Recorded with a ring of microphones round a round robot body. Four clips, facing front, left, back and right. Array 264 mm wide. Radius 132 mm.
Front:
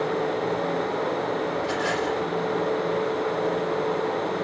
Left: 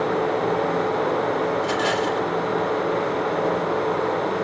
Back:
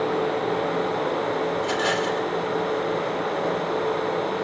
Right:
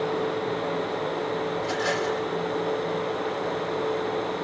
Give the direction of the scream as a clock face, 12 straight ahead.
No scream in this recording.